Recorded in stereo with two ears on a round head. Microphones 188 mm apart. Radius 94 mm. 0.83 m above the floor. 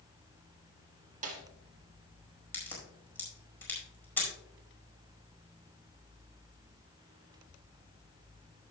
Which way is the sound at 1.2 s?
35° right (ahead or behind).